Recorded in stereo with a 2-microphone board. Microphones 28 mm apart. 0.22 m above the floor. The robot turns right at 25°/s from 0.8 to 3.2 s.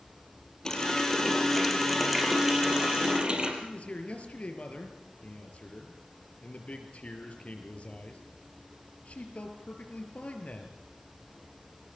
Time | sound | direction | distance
0.7 | a running tap | 160° left | 4.5 m
3.6 | a man speaking | 50° left (ahead or behind) | 4.5 m